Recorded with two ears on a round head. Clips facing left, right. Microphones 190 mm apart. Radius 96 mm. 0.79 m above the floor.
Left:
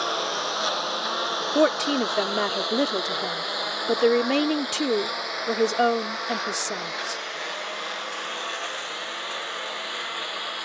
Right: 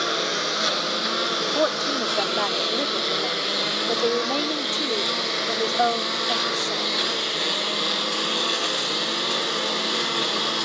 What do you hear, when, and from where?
0.0 s a lawn mower: 25° right (ahead or behind); by 10.7 s 60° right (ahead or behind)
1.6 s a woman speaking: 30° left (ahead or behind)